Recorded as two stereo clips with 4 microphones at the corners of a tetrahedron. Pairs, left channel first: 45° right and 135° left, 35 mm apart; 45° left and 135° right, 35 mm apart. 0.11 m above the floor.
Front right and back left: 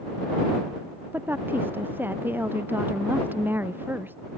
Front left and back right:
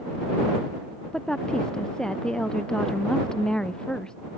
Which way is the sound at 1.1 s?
115° left.